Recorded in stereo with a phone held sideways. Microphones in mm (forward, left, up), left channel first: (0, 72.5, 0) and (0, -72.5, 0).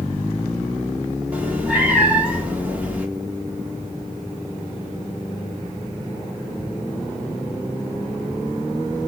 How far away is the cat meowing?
About 1.0 m.